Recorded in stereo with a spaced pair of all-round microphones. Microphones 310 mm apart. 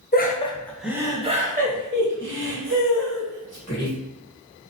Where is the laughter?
30° left (ahead or behind), 0.7 m; by 3.9 s 55° right (ahead or behind), 2 m.